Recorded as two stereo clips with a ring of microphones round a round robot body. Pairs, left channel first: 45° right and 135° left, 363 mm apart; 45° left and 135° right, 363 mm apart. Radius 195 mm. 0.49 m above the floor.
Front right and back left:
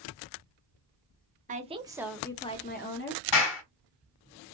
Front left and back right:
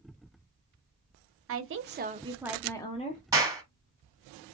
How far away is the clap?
About 2 m.